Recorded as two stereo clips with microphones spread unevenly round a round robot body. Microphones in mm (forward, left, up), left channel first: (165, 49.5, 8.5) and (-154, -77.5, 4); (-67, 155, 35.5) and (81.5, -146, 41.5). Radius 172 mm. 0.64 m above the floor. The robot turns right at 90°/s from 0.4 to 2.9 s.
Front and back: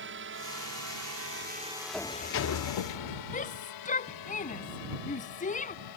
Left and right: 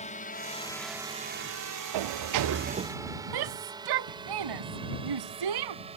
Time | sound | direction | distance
0.0 | a drone | 175° left | ?
1.9 | a sliding door | 70° right | ?
3.3 | a shout | 45° right | ?